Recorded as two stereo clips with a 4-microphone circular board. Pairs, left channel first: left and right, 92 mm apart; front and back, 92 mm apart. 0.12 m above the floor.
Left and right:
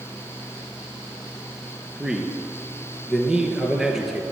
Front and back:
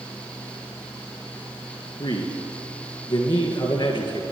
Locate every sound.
2.0 s a man speaking: 5° right, 2.5 m